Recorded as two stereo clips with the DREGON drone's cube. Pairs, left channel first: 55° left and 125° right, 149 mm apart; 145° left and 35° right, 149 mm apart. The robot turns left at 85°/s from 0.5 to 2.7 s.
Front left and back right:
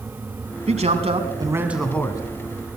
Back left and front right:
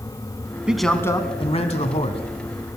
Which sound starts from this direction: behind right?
A man speaking, at 0.7 s.